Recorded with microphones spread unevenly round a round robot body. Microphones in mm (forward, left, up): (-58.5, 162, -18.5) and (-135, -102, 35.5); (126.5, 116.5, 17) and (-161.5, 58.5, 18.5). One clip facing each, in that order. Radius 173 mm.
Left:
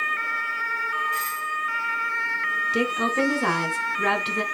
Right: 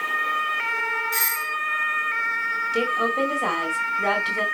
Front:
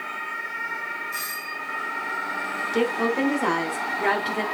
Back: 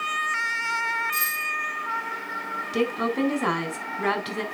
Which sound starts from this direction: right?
A doorbell, at 1.1 s.